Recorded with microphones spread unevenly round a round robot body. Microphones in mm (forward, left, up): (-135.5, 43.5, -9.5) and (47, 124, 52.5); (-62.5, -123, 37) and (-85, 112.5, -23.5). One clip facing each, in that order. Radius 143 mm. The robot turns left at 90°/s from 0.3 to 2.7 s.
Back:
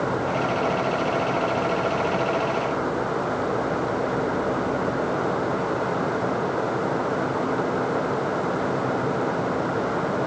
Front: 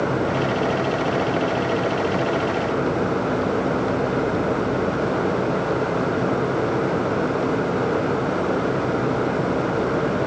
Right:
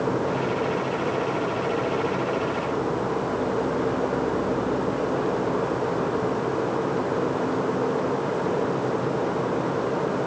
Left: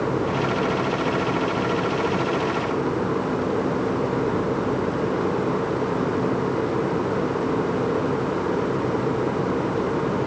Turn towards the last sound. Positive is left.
No sound to turn to.